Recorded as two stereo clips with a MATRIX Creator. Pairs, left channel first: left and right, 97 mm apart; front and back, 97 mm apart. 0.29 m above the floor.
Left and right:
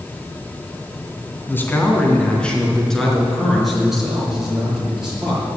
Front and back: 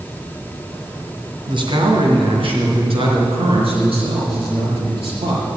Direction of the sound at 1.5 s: 155° left.